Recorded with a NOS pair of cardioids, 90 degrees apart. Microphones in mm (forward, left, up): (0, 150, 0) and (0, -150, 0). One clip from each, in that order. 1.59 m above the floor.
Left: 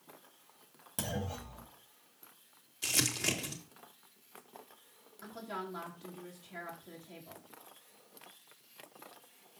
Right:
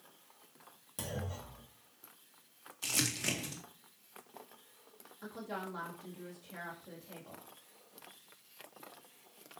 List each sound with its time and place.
1.0 s a clunk: 35° left, 2.0 m
2.8 s crumpling: 15° left, 2 m
5.2 s a woman speaking: straight ahead, 3.5 m